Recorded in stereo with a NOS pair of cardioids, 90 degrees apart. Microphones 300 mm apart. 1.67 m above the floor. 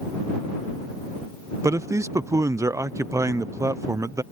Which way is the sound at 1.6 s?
10° right.